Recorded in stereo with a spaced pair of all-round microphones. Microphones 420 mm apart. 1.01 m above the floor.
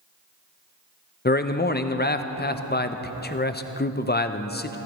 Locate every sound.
1.2 s a man speaking: 25° left (ahead or behind), 0.5 m